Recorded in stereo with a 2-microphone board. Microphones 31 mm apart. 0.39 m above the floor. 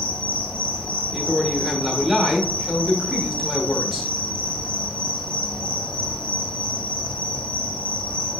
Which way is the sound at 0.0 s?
50° left (ahead or behind).